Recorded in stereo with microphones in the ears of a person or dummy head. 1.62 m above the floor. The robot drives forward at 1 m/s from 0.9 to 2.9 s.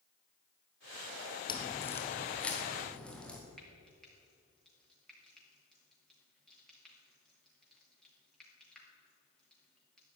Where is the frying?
5° left (ahead or behind), 3.5 m.